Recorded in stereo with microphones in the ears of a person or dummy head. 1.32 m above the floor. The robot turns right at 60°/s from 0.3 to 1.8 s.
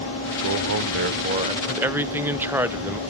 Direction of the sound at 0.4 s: 95° right.